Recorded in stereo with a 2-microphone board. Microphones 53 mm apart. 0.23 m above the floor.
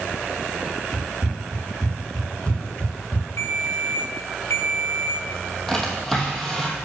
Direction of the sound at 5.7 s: 5° left (ahead or behind).